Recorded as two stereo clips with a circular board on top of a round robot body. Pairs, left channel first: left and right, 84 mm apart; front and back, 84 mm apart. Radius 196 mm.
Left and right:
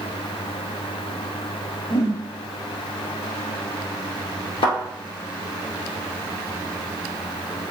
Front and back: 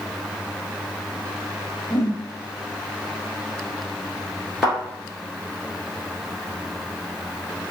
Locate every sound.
1.9 s a whoosh: 75° left, 0.9 m
4.6 s a thud: 95° left, 1.7 m